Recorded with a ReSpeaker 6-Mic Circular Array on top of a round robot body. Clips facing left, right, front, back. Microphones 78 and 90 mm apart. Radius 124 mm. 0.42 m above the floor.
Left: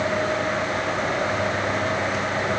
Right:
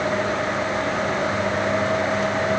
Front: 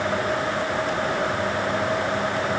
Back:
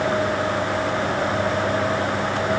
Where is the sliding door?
No sliding door in this recording.